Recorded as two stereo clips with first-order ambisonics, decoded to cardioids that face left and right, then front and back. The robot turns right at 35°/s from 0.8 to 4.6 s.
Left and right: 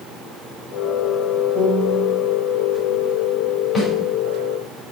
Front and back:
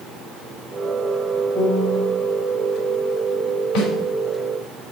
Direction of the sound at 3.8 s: 20° left.